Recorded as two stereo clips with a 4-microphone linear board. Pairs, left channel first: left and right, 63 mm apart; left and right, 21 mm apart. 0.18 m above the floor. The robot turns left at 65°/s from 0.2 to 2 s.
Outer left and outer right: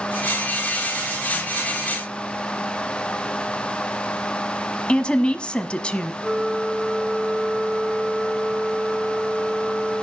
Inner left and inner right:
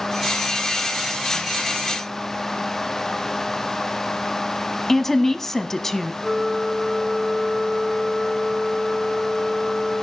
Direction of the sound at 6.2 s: 25° right (ahead or behind).